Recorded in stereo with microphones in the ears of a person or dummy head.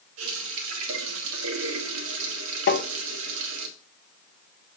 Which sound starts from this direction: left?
Tapping, at 2.7 s.